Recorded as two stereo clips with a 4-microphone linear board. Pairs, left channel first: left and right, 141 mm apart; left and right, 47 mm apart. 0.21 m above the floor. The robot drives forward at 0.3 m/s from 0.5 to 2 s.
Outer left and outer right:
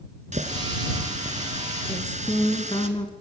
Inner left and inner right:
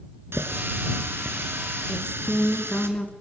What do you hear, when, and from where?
0.3 s a running tap: 65° right (ahead or behind), 1.9 m
1.9 s a woman speaking: 40° left (ahead or behind), 2.5 m